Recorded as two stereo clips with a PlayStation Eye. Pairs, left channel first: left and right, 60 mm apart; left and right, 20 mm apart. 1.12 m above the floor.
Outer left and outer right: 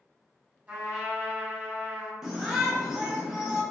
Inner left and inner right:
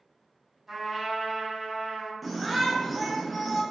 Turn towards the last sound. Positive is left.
turn(degrees=-10)  # may be behind; listen again after turning